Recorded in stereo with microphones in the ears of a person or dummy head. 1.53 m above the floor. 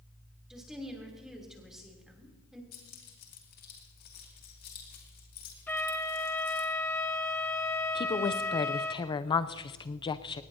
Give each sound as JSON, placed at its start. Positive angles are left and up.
{"t": 0.5, "sound": "a woman speaking", "side_deg": -5, "distance_m": 3.5}
{"t": 2.7, "sound": "keys jangling", "side_deg": 45, "distance_m": 2.5}
{"t": 5.7, "sound": "a flute", "side_deg": 10, "distance_m": 0.9}
{"t": 8.0, "sound": "a woman speaking", "side_deg": 25, "distance_m": 0.6}